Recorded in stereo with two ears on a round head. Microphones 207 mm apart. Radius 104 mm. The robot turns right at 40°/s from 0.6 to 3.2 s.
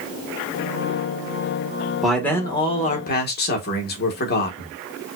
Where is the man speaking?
Straight ahead, 1.3 m; by 4.7 s 45° left, 1.3 m.